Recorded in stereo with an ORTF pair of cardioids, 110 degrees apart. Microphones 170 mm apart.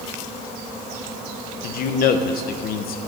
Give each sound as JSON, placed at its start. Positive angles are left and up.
{"t": 1.6, "sound": "a man speaking", "azimuth_deg": 60, "distance_m": 0.8}